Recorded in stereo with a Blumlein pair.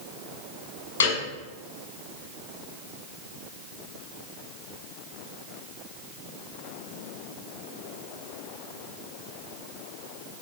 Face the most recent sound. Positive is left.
turn(degrees=60)